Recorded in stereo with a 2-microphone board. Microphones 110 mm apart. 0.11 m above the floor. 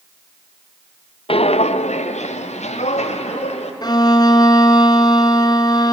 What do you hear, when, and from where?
1.3 s footsteps: 55° left (ahead or behind), 1.0 m; by 3.7 s 80° left, 4 m
3.8 s a violin: 40° left (ahead or behind), 1.0 m